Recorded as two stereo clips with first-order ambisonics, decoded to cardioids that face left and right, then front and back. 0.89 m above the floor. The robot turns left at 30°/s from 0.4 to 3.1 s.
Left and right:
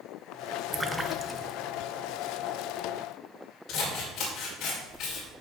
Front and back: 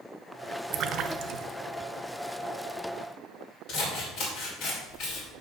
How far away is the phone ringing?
I don't hear a phone ringing.